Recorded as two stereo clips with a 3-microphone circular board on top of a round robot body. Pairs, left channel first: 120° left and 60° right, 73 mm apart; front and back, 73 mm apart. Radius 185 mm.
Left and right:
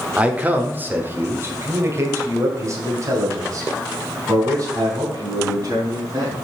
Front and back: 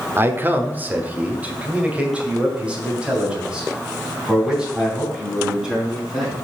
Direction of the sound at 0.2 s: 130° right.